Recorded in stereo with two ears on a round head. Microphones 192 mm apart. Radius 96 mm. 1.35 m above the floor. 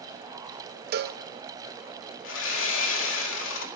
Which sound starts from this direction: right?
A cowbell, at 0.9 s.